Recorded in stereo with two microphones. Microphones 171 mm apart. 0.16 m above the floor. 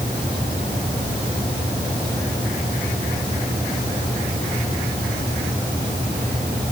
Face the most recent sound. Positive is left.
No sound to turn to.